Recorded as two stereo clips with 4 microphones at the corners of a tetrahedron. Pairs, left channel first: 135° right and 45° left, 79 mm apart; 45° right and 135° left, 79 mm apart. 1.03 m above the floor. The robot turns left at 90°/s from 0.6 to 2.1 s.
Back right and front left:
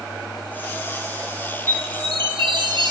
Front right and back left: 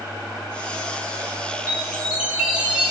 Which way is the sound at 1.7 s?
95° left.